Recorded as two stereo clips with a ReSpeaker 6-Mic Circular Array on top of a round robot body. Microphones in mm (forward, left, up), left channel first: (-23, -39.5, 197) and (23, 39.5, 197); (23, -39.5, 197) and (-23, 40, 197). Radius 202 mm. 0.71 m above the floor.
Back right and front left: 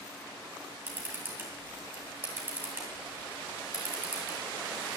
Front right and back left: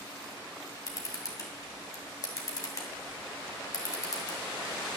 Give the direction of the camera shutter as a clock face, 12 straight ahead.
12 o'clock.